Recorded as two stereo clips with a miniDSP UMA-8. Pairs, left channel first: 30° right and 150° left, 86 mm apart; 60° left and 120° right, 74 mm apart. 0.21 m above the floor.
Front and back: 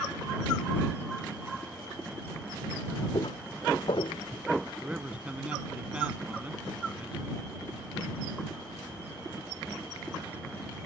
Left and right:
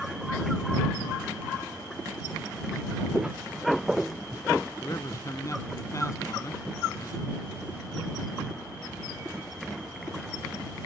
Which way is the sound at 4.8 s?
80° left.